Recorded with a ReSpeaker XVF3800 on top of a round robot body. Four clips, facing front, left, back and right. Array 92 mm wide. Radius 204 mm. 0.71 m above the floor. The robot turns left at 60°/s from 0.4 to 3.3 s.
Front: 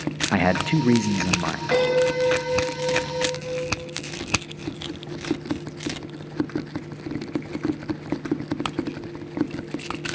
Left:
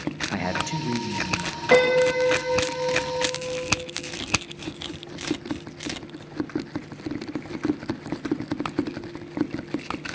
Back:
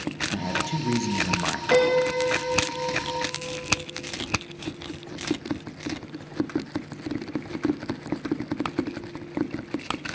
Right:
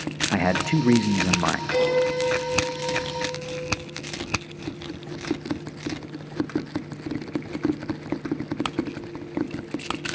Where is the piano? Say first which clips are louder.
Left 6 dB, even; 100° left, 7 m; by 3.7 s straight ahead, 7 m.